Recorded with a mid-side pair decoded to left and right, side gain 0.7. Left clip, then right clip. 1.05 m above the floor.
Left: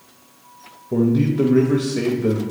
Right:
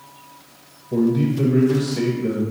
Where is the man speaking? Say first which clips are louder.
Left 1 dB; 25° left, 1.0 m.